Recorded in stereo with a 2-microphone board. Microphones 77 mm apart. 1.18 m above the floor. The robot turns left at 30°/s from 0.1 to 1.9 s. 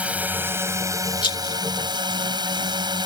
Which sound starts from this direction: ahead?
A drone, at 0.0 s.